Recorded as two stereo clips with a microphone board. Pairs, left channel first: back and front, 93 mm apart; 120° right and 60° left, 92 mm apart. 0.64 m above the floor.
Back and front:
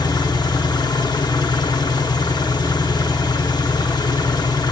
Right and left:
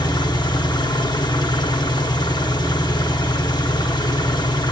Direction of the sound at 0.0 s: 150° right.